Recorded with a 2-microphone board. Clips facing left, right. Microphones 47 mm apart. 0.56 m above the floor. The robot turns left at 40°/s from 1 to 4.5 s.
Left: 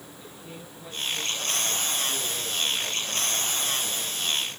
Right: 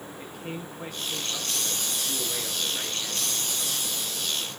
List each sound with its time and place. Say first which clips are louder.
0.2 s a man speaking: right 7 dB; 95° right, 8.5 m; by 4.5 s 125° left, 8.5 m